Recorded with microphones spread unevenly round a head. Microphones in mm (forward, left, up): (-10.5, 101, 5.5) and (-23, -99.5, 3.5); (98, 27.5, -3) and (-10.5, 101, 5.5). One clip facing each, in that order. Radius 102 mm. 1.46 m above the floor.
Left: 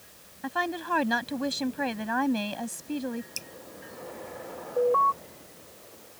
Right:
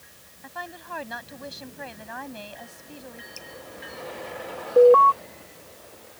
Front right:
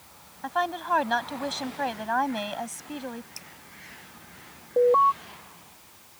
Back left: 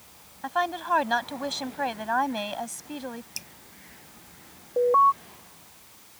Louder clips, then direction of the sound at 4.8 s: Right 11 dB, front right 1 dB; 110° right.